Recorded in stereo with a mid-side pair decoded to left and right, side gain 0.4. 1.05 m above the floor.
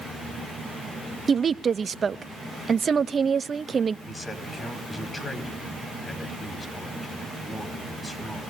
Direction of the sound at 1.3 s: 40° right.